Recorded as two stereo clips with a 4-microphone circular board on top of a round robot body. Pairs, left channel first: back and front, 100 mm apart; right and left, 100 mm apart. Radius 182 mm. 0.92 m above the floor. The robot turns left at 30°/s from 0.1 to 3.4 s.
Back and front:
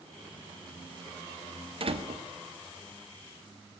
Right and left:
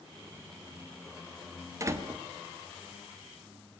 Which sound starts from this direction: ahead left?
A door slam, at 1.8 s.